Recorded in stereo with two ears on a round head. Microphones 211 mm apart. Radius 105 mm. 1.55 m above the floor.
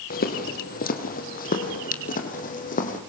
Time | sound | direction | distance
0.1 | footsteps | 40° left (ahead or behind) | 3 m